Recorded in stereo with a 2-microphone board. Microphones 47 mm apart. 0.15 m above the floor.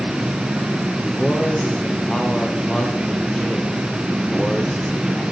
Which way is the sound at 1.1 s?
15° left (ahead or behind).